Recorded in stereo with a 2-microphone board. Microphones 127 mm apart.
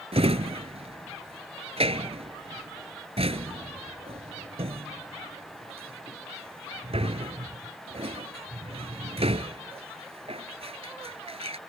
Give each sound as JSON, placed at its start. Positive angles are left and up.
{"t": 0.1, "sound": "a drawer", "side_deg": -50}